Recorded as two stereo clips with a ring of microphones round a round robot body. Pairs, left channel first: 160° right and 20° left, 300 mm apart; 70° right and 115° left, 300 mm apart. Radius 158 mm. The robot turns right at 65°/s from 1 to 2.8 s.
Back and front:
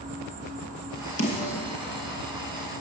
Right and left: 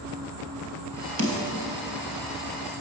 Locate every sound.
0.0 s an insect: 85° left, 3 m; by 2.8 s 155° right, 3 m
1.2 s a snare drum: 155° left, 2.5 m; by 1.6 s straight behind, 2.5 m